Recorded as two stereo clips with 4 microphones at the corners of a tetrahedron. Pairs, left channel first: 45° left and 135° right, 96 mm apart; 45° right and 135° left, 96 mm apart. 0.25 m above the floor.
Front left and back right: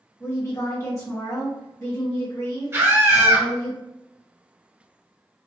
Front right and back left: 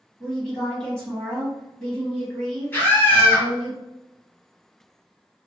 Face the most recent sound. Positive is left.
turn(degrees=-95)